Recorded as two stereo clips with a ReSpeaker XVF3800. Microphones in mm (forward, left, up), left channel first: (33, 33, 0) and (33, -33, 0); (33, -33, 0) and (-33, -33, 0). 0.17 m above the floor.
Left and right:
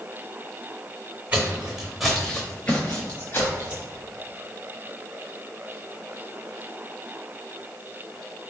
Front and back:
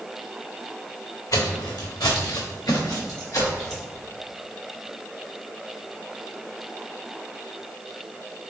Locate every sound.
1.3 s footsteps: 25° right, 0.8 m; by 3.9 s 45° left, 1.3 m